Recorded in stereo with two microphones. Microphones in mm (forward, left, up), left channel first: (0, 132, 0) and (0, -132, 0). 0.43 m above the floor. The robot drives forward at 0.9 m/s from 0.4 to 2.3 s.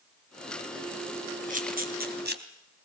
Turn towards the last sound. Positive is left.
turn(degrees=-40)  # may be behind; listen again after turning